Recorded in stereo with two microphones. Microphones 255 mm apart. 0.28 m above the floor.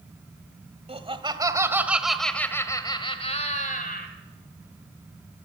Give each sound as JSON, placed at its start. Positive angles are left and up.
{"t": 0.9, "sound": "laughter", "side_deg": -25, "distance_m": 1.8}